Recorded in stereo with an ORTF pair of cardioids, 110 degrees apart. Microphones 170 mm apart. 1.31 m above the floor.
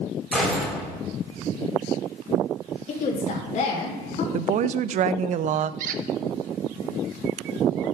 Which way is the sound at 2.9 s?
50° left.